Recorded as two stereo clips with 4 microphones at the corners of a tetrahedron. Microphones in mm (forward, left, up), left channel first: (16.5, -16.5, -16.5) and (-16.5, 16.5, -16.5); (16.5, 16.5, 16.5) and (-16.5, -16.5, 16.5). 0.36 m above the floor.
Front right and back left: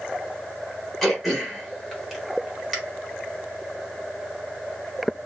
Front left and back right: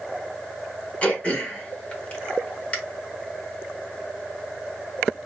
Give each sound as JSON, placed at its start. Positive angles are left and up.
{"t": 1.0, "sound": "throat clearing", "azimuth_deg": 35, "distance_m": 1.0}